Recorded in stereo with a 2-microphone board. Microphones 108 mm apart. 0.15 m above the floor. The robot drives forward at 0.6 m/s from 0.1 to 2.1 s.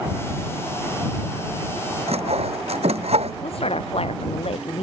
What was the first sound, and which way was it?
Sawing, 70° right (ahead or behind).